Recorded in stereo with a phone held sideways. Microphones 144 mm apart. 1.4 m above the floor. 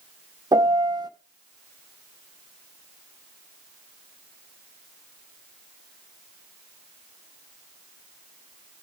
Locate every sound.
0.5 s a piano: 30° right (ahead or behind), 1.0 m